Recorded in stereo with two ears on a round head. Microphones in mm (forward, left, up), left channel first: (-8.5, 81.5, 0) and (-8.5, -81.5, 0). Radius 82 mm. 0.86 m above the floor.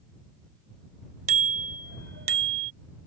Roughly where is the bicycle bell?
Right.